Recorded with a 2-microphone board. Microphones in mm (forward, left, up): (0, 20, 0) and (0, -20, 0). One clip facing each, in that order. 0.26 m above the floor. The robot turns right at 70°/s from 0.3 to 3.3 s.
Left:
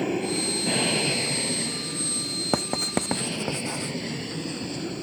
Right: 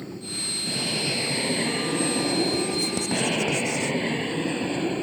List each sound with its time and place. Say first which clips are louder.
0.0 s an aircraft: left 8 dB; 115° left; by 5.0 s 35° right
2.5 s writing: right 1 dB; 70° left (ahead or behind); by 4.0 s 15° left (ahead or behind)